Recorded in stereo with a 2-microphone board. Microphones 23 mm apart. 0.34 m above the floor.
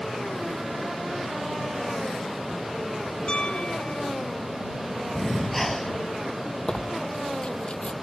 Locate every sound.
3.3 s a piano: 45° left (ahead or behind)
5.2 s breathing: 5° left (ahead or behind)
6.7 s tearing paper: 45° left (ahead or behind)